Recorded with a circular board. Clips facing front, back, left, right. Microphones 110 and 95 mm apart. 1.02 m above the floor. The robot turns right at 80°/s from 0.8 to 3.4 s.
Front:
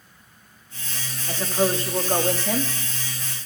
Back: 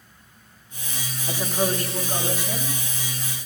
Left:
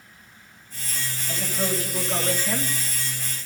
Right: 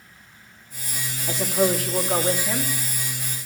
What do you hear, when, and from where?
1.3 s a woman speaking: 105° right, 1.5 m; by 2.7 s 10° left, 1.5 m